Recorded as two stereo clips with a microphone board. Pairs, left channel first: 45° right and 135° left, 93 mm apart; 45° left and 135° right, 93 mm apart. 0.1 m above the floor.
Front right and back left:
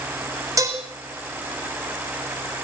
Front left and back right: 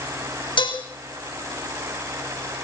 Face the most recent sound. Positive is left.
turn(degrees=80)